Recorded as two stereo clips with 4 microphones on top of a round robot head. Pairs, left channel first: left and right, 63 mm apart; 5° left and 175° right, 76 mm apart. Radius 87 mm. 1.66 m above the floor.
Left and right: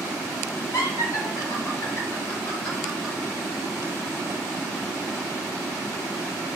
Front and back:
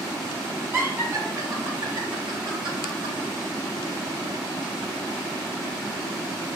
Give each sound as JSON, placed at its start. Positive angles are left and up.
{"t": 0.7, "sound": "laughter", "azimuth_deg": 130, "distance_m": 2.0}